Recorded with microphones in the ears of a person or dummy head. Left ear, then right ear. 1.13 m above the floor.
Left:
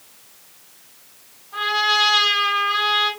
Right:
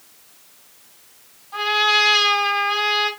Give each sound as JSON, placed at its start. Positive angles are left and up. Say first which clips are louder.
{"t": 1.5, "sound": "a trumpet", "louder": "right 1 dB", "side_deg": -60, "distance_m": 1.8}